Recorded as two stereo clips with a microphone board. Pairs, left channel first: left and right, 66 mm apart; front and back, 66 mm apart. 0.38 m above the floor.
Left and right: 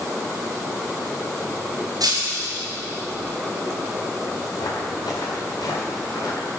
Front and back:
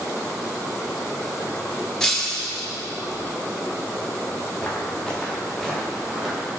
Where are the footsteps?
70° left, 4 m; by 6.5 s 100° left, 4 m.